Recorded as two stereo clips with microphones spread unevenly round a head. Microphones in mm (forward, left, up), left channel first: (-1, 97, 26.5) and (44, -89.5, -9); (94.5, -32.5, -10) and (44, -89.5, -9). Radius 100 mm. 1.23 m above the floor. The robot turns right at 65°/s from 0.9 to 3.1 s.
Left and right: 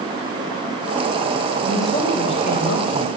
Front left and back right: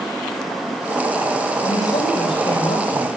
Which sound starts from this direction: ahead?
A woman speaking, at 1.6 s.